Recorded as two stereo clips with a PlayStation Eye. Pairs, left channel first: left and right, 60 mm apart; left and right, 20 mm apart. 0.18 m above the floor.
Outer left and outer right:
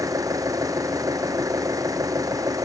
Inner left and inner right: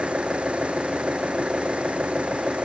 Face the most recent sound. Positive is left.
turn(degrees=-75)  # may be behind; listen again after turning